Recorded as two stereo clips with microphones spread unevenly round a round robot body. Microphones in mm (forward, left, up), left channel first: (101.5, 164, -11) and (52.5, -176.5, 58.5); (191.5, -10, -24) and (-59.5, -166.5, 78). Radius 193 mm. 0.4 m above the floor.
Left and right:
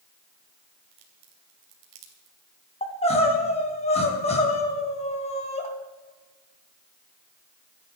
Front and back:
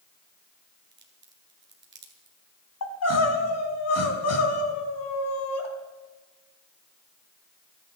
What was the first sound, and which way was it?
A crack, 90° right.